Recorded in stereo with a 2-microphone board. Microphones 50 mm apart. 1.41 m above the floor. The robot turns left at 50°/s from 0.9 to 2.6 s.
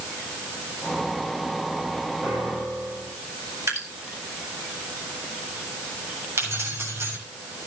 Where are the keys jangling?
60° right (ahead or behind), 7 m.